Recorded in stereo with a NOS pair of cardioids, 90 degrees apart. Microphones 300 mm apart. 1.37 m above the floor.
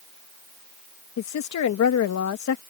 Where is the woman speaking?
65° left.